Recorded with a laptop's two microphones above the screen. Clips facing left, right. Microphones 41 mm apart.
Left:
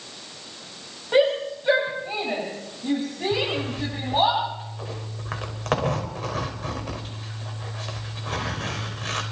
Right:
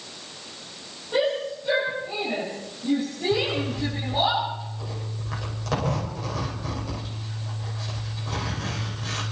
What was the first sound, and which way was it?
A shout, 60° left (ahead or behind).